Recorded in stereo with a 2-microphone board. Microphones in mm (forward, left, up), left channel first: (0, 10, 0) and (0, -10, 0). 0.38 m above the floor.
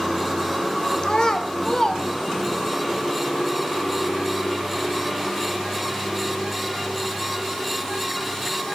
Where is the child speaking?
35° left (ahead or behind), 0.9 m; by 2.8 s 40° left (ahead or behind), 2 m.